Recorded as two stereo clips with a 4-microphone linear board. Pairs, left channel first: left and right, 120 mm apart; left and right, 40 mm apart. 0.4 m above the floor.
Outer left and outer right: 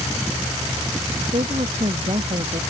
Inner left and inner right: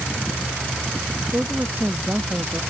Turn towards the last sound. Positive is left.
turn(degrees=-55)  # may be behind; listen again after turning